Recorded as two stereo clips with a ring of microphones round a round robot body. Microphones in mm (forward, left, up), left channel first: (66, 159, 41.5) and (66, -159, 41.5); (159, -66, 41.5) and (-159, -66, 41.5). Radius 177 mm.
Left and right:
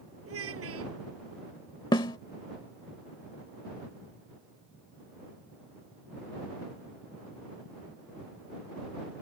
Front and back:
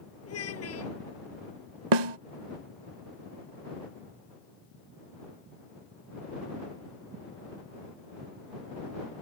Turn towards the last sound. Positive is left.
turn(degrees=170)